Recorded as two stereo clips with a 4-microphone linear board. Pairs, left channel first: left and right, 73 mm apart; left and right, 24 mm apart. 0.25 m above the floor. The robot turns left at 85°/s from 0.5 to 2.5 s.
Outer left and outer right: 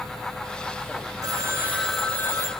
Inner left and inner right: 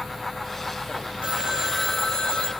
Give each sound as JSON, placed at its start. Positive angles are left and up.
{"t": 1.2, "sound": "a phone ringing", "azimuth_deg": -120, "distance_m": 3.5}